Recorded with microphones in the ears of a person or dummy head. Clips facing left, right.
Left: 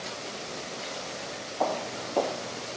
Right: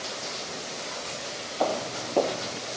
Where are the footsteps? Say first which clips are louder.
Right 2 dB; 25° right (ahead or behind); by 2.6 s 35° right (ahead or behind).